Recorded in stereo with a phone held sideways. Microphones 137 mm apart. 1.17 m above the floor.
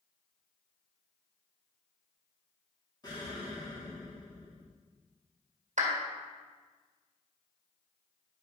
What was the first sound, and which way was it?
An explosion, 30° left (ahead or behind).